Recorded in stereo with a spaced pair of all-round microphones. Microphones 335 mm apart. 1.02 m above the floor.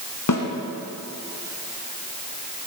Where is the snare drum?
65° left (ahead or behind), 1.9 m.